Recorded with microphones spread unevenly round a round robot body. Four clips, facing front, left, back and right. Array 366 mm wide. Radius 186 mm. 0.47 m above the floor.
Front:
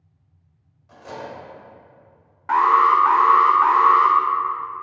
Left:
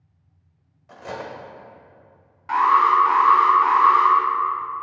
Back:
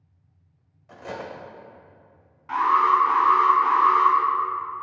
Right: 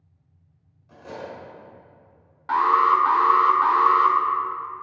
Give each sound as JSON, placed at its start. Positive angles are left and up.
{"t": 0.9, "sound": "cutlery clinking", "azimuth_deg": 115, "distance_m": 1.5}
{"t": 2.5, "sound": "an alarm", "azimuth_deg": -15, "distance_m": 1.1}